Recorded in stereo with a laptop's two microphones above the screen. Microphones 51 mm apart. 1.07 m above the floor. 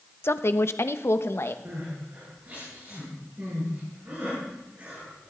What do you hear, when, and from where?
0.2 s a woman speaking: 55° left (ahead or behind), 0.6 m
1.6 s crying: 35° right (ahead or behind), 7 m